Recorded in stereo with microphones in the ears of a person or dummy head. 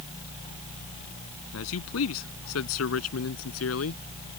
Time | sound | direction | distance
1.5 | a man speaking | 90° left | ?